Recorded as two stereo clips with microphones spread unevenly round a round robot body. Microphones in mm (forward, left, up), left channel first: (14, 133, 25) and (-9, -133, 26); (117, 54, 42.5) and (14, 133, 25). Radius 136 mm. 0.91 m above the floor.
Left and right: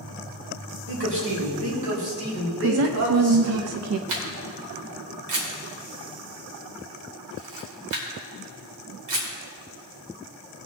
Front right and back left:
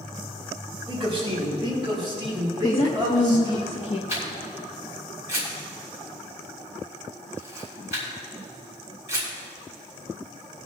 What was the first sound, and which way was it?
A man speaking, 135° right.